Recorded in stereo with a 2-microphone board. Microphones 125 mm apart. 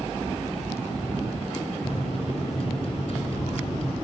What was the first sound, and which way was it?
A microwave, 50° left (ahead or behind).